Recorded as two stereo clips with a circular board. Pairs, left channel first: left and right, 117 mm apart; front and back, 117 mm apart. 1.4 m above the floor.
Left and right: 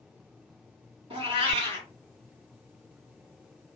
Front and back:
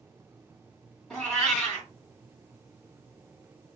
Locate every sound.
1.1 s a cat meowing: 85° right, 1.7 m